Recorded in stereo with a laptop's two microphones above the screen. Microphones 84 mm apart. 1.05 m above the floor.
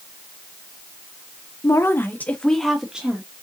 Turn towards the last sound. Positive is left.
turn(degrees=-15)  # may be behind; listen again after turning